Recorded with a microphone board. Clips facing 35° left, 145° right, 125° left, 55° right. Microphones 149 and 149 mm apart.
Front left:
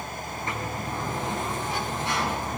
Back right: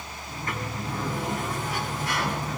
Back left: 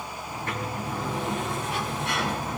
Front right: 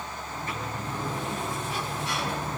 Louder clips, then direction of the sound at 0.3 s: Even, back left 3 dB; 100° left.